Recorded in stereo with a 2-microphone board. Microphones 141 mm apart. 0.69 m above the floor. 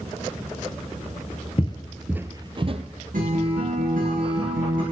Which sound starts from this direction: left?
Footsteps, at 1.6 s.